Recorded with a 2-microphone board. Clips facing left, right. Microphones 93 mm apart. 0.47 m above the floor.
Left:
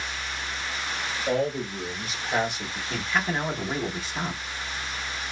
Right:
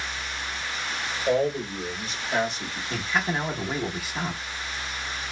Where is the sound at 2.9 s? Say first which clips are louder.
Even; 5° right (ahead or behind), 0.7 m.